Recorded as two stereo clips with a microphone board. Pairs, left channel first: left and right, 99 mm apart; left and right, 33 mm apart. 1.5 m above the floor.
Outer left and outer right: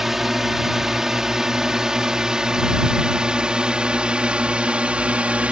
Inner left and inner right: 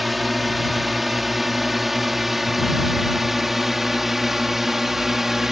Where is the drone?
5° right (ahead or behind); by 5.5 s 10° right (ahead or behind).